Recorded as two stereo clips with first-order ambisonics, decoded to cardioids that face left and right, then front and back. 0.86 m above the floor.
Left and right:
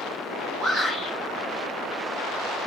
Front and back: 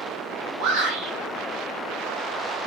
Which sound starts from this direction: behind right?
A shout, at 0.6 s.